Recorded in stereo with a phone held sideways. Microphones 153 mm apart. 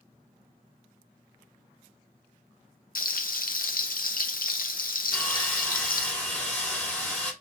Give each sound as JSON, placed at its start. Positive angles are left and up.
{"t": 3.0, "sound": "frying", "side_deg": 70, "distance_m": 0.6}
{"t": 5.1, "sound": "sawing", "side_deg": 10, "distance_m": 1.8}